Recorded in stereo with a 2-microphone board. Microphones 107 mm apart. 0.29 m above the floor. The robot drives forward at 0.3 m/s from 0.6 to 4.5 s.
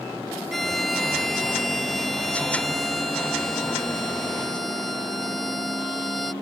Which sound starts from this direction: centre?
A violin, at 0.5 s.